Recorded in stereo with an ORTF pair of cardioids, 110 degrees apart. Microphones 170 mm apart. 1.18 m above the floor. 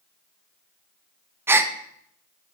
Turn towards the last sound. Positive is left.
turn(degrees=-15)